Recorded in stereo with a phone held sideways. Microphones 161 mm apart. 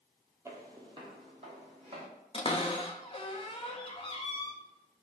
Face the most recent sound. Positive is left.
turn(degrees=35)  # may be behind; listen again after turning